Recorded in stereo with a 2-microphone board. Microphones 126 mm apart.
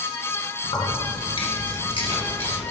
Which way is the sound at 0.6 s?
40° left (ahead or behind).